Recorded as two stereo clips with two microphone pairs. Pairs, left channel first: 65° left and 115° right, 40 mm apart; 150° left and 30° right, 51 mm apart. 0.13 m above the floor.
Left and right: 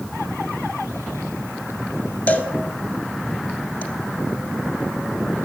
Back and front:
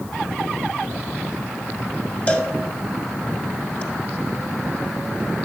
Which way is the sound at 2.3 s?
100° left.